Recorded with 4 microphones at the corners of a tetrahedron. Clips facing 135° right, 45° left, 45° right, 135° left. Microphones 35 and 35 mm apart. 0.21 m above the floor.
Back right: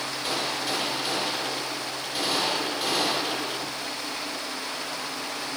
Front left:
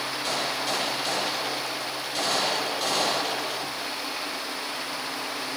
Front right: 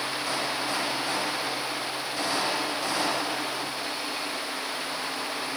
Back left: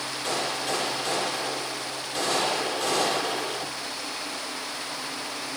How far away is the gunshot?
About 7.5 m.